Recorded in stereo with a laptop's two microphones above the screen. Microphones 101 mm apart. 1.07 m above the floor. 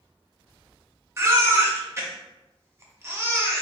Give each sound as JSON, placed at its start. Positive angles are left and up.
{"t": 1.2, "sound": "a baby crying", "side_deg": -25, "distance_m": 0.5}